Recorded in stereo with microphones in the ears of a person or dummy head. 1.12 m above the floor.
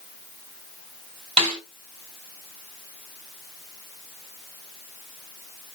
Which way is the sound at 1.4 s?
40° right (ahead or behind).